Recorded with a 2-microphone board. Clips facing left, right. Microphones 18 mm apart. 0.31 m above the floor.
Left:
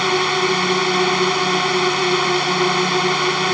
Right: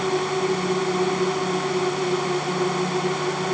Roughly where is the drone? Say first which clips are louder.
Left 6 dB; left.